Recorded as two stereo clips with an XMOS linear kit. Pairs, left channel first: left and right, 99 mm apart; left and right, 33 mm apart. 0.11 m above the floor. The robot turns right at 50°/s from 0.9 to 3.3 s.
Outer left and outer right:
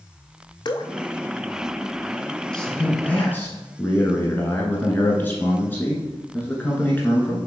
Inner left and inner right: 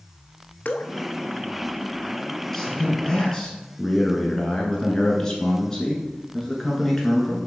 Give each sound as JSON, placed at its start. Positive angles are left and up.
{"t": 0.7, "sound": "dripping", "side_deg": 50, "distance_m": 0.5}
{"t": 2.5, "sound": "a man speaking", "side_deg": 10, "distance_m": 1.2}